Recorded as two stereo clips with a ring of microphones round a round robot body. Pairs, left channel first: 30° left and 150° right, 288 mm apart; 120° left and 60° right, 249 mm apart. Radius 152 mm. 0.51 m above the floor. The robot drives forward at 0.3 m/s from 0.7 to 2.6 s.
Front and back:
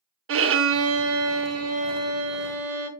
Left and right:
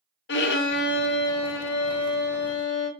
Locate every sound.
0.3 s a violin: 165° left, 0.6 m; by 2.9 s 175° left, 1.1 m